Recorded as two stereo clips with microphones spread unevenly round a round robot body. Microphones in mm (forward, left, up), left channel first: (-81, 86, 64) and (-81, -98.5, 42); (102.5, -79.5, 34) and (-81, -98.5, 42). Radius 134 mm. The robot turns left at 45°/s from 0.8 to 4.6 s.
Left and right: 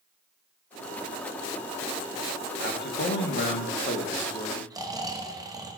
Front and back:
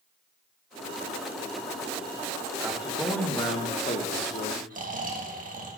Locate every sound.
2.6 s a man speaking: 110° left, 1.3 m; by 4.6 s 20° left, 1.3 m
4.7 s snoring: 150° right, 1.4 m